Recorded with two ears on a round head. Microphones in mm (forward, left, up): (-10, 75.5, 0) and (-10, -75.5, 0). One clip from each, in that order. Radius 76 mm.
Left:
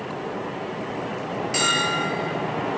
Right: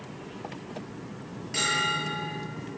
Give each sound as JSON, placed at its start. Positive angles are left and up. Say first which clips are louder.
{"t": 1.5, "sound": "a bell", "louder": "left 4 dB", "side_deg": 25, "distance_m": 9.5}